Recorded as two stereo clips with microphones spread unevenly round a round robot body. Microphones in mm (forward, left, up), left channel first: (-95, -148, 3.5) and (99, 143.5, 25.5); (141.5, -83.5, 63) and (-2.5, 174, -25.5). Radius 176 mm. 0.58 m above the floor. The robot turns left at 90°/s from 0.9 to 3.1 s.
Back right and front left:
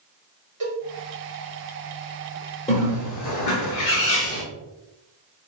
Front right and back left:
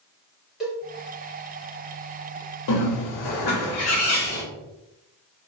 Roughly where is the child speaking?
I don't hear a child speaking.